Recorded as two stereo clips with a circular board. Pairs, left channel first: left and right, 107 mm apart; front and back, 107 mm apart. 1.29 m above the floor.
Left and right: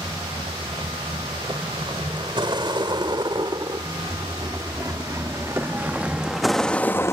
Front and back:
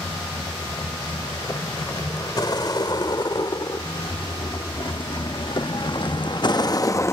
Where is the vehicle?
55° right; by 7.1 s 45° left.